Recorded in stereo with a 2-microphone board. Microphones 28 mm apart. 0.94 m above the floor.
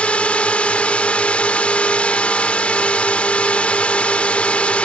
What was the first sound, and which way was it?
A drone, 50° left (ahead or behind).